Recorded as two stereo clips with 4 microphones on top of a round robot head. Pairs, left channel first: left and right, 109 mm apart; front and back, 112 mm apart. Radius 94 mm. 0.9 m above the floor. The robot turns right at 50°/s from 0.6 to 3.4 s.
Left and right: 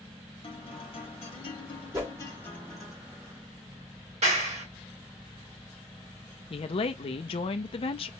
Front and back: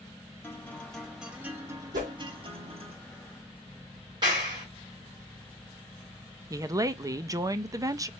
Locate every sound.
0.4 s a guitar: 70° left, 1.8 m; by 2.9 s 175° right, 1.8 m
1.9 s a whoosh: 165° right, 1.1 m; by 2.1 s 155° right, 1.1 m
4.2 s a clap: 120° right, 1.9 m
6.5 s a woman speaking: 120° left, 0.6 m